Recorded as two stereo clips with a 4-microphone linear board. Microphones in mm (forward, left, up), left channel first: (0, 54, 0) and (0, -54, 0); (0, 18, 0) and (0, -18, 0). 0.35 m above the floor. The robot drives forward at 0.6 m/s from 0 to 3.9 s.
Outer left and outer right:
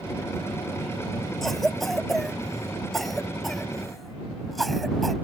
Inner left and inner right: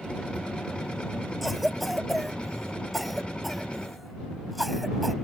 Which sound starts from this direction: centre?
A cough, at 1.4 s.